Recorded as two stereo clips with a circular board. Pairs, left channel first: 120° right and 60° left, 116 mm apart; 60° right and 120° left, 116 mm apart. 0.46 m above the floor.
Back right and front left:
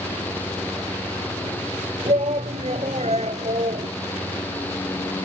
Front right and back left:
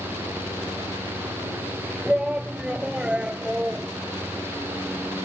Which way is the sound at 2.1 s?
40° left.